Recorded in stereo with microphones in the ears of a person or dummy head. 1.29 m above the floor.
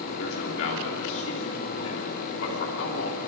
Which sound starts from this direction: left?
A man speaking, at 0.2 s.